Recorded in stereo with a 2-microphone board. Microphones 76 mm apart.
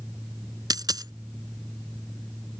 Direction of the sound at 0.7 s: 60° right (ahead or behind).